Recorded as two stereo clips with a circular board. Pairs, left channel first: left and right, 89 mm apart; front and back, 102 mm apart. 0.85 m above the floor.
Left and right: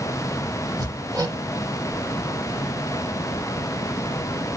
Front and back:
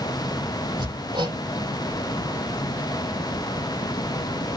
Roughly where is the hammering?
Behind right.